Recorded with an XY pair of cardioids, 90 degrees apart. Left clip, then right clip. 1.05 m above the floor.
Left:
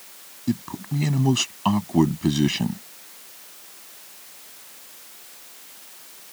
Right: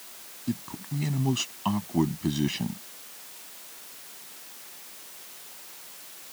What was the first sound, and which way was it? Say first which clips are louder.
A man speaking: left 6 dB; 45° left.